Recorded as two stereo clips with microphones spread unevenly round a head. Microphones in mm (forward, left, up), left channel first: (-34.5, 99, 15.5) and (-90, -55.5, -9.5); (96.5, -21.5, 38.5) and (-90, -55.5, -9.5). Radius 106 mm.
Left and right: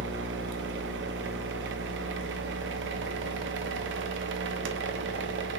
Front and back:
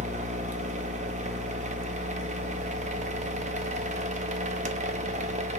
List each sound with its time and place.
0.0 s a machine running: 115° right, 0.7 m